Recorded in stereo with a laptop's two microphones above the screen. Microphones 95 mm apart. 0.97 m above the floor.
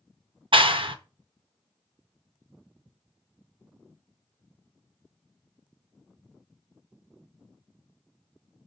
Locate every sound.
0.5 s a clap: 60° right (ahead or behind), 0.6 m